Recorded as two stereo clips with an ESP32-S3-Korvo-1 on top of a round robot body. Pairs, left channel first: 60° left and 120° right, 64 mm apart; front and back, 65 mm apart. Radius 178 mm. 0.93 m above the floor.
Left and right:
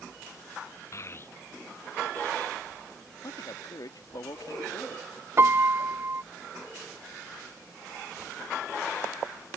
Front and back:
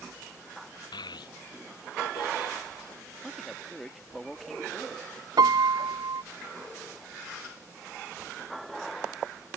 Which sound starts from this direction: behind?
A piano, at 5.4 s.